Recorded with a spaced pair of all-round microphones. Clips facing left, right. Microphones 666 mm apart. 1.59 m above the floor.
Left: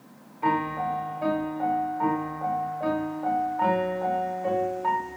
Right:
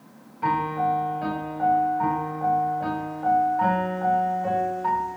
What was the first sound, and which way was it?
A piano, 40° right (ahead or behind).